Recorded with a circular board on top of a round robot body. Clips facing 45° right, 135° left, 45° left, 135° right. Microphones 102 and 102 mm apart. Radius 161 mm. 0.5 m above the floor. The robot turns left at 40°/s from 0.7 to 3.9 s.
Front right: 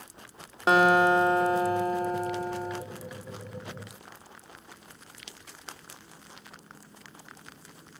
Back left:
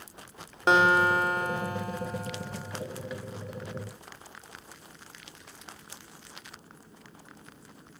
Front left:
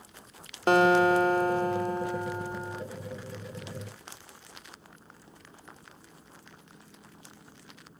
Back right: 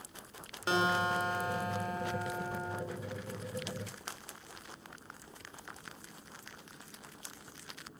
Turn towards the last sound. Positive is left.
turn(degrees=-90)